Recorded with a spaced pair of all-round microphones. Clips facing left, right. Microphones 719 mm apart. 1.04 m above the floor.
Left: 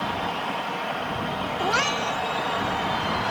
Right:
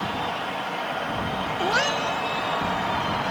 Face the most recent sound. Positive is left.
turn(degrees=35)  # may be behind; listen again after turning